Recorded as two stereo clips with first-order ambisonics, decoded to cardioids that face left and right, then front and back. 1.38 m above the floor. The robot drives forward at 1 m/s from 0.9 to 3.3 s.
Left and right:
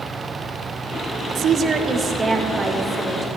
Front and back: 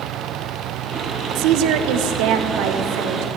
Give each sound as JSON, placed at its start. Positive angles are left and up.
{"t": 1.4, "sound": "a woman speaking", "azimuth_deg": -150, "distance_m": 0.6}